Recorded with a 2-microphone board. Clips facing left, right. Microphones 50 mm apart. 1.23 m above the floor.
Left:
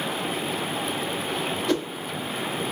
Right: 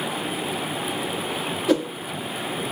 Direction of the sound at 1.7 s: 10° right (ahead or behind).